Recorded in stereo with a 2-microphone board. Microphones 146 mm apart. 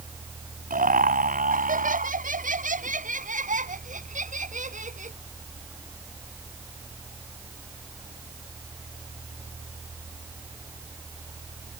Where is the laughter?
70° right (ahead or behind); by 5.2 s 55° right (ahead or behind).